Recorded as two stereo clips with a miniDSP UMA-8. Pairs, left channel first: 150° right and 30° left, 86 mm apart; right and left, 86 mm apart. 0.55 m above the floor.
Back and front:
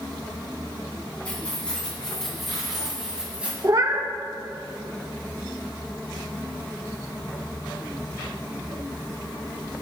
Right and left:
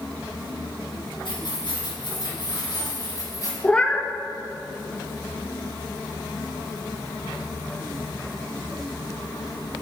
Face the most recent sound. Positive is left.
turn(degrees=-15)